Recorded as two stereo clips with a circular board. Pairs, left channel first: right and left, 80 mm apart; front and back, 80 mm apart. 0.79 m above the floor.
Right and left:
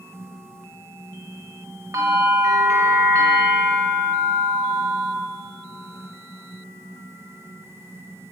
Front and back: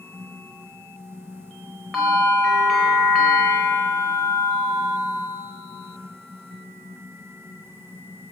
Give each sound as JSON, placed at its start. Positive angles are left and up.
{"t": 1.9, "sound": "a bell", "azimuth_deg": 95, "distance_m": 1.1}